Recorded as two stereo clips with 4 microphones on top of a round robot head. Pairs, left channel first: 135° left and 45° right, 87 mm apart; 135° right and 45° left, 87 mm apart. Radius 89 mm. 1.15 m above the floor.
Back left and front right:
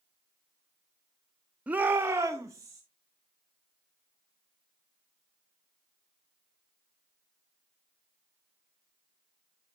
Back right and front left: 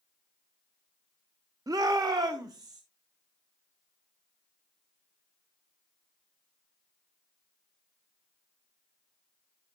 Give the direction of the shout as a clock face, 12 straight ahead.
11 o'clock.